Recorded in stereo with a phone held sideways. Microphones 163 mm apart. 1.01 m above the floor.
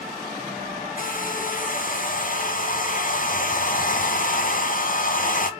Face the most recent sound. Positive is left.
turn(degrees=55)  # may be behind; listen again after turning